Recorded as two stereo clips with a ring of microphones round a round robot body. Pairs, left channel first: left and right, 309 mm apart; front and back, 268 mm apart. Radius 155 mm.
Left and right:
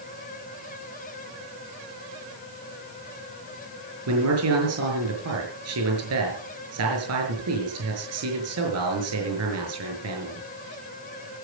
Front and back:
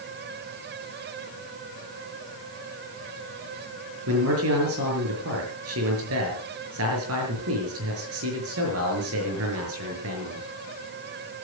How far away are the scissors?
I don't hear scissors.